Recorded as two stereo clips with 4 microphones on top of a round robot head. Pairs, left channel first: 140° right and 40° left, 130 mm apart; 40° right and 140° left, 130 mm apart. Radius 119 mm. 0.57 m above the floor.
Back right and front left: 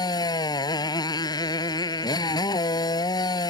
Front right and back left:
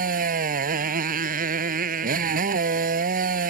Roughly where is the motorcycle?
Behind left.